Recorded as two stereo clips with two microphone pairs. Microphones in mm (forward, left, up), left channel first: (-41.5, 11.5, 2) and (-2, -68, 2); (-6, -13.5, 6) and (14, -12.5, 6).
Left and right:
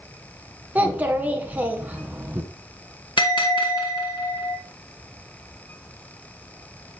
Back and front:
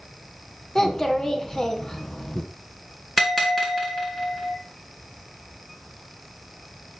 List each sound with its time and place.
0.8 s a child speaking: 130° right, 1.3 m
3.2 s a bell: 100° left, 2 m